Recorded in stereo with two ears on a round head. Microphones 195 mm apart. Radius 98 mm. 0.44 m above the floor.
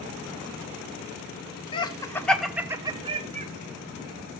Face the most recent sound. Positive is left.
turn(degrees=-35)  # may be behind; listen again after turning